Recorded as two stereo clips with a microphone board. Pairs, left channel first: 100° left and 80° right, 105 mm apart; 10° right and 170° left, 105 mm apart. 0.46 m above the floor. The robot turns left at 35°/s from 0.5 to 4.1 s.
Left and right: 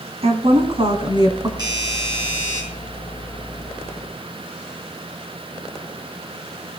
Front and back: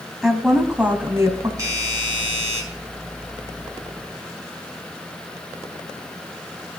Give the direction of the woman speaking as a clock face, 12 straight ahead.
3 o'clock.